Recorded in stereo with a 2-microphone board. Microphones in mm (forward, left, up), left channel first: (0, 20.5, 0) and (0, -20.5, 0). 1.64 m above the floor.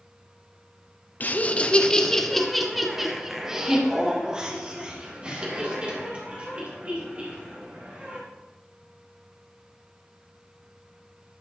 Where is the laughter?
45° left (ahead or behind), 0.8 m; by 8.2 s 30° right (ahead or behind), 4 m.